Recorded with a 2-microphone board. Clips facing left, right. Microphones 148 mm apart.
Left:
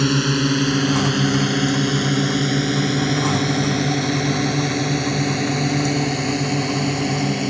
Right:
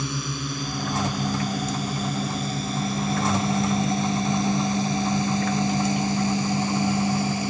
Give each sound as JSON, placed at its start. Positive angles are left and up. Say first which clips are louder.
{"t": 0.0, "sound": "a drone", "louder": "left 12 dB", "side_deg": 80}